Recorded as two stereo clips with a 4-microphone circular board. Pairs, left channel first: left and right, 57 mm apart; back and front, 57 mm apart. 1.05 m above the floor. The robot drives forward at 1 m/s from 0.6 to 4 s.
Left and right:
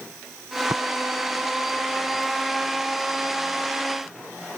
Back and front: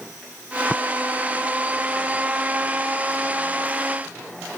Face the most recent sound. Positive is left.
turn(degrees=-115)